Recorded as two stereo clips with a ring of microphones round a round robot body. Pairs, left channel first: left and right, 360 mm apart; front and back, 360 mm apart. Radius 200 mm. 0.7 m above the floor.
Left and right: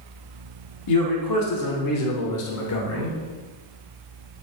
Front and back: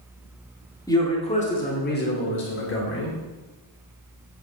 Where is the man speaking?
80° left, 2 m; by 3.2 s 50° left, 3.5 m.